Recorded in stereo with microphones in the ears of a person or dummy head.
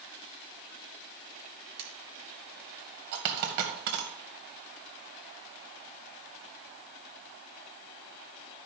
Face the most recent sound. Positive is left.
turn(degrees=-55)  # may be behind; listen again after turning